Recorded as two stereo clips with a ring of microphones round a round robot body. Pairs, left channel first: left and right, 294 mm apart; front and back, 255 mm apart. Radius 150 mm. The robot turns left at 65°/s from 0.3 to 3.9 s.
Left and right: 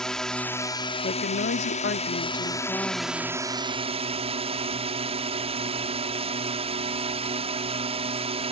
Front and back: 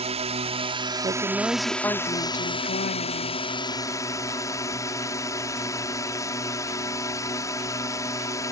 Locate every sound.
0.0 s a drone: 175° left; by 8.5 s 60° right
1.0 s a woman speaking: 125° left; by 3.5 s 30° right